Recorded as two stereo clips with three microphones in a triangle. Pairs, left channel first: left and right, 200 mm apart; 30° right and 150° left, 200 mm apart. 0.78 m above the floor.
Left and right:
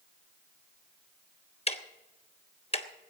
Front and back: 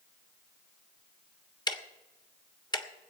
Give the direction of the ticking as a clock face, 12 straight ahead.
11 o'clock.